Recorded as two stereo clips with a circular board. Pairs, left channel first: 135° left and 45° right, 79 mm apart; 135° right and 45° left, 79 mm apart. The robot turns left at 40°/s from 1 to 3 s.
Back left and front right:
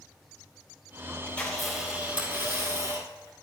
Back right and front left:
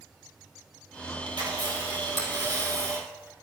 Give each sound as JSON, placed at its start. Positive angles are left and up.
{"t": 1.3, "sound": "a camera shutter", "azimuth_deg": 60, "distance_m": 3.0}